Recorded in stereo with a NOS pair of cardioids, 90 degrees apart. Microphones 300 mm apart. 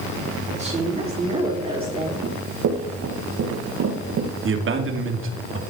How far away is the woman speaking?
About 3 m.